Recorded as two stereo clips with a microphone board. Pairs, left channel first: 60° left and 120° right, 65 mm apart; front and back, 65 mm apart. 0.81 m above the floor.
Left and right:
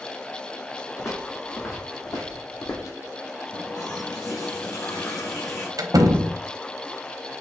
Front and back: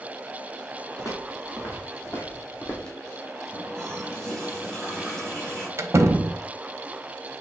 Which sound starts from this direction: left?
A running tap, at 3.5 s.